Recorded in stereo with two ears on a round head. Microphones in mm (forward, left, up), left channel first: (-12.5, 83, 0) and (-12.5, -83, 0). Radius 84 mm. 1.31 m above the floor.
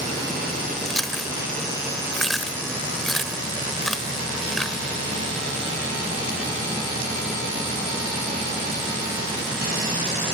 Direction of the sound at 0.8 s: Centre (ahead or behind).